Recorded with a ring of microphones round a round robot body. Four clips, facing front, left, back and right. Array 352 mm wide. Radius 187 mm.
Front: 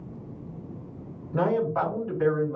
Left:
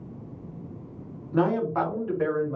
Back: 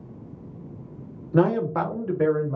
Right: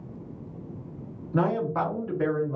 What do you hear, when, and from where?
1.3 s a man speaking: straight behind, 2 m; by 2.6 s 170° left, 2.5 m